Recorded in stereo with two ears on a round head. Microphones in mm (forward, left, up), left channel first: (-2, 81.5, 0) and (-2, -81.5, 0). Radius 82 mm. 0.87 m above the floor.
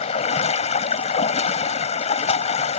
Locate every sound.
0.0 s running water: 35° left (ahead or behind)